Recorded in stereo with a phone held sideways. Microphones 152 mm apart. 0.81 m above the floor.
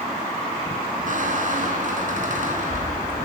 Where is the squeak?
55° right (ahead or behind), 2 m.